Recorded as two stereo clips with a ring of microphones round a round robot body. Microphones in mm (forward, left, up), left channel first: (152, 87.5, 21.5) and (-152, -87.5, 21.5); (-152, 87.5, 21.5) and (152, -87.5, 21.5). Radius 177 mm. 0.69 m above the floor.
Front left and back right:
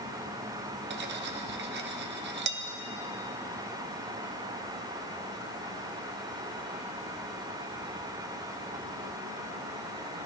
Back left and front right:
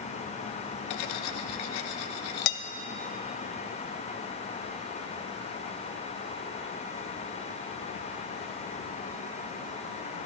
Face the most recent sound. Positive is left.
turn(degrees=150)